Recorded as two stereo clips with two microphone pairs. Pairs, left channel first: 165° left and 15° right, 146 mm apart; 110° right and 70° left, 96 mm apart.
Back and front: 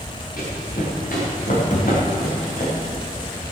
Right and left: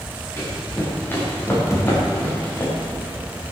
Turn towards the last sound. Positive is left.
turn(degrees=-165)